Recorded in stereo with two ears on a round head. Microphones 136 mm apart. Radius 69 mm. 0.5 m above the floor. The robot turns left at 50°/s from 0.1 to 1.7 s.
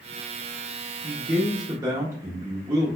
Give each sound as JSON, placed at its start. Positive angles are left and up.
{"t": 1.0, "sound": "a man speaking", "side_deg": -30, "distance_m": 0.7}